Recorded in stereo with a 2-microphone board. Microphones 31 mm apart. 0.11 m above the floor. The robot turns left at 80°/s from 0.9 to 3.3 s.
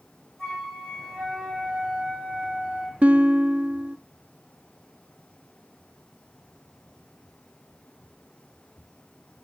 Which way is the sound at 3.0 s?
45° right (ahead or behind).